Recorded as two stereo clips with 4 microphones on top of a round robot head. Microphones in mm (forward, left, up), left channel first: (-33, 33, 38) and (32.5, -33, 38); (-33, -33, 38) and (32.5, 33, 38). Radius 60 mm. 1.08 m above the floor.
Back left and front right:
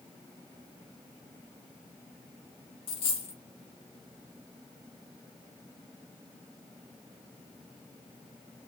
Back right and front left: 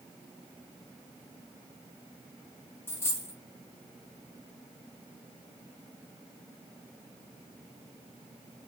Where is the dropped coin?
165° left, 0.9 m.